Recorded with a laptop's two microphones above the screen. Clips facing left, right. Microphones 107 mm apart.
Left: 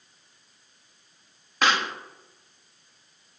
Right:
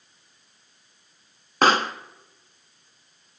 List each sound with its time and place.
1.6 s a pop: 40° right (ahead or behind), 0.9 m